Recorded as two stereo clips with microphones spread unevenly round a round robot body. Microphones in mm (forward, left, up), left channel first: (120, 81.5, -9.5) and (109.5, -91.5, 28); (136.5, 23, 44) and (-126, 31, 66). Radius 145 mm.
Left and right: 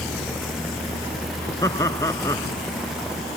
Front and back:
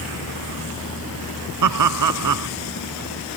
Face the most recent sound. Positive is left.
turn(degrees=165)